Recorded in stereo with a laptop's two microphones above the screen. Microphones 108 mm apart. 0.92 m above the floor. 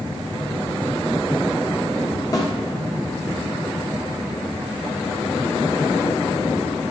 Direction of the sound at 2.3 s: 30° left (ahead or behind).